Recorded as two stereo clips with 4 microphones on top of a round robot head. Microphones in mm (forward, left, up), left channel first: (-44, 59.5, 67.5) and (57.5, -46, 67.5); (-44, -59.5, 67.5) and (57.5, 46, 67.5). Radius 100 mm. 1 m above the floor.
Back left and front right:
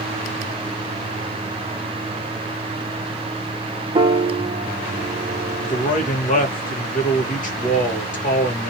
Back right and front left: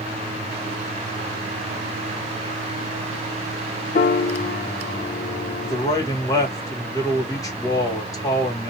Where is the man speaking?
160° left, 1.5 m.